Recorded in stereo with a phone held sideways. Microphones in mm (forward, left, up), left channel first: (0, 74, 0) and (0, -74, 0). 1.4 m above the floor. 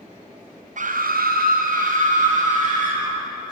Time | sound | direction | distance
0.8 | a scream | 60° right (ahead or behind) | 0.6 m